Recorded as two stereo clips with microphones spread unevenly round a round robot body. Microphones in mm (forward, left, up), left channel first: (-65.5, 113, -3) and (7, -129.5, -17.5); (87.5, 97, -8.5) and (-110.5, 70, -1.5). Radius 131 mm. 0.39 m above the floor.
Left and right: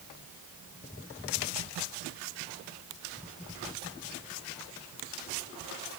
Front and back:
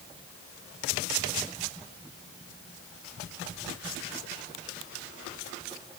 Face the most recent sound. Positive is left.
No sound to turn to.